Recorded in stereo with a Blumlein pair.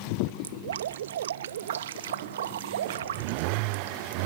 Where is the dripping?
60° right.